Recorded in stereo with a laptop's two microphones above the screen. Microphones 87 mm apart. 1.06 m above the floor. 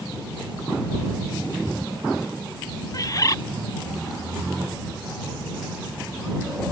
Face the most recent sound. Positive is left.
turn(degrees=40)  # may be behind; listen again after turning